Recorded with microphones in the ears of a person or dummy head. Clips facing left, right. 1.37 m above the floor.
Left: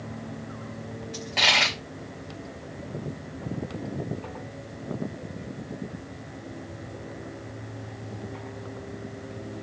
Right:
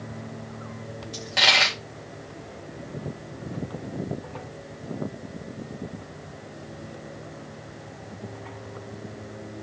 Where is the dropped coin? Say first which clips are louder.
Right 2 dB; 10° right (ahead or behind), 0.9 m.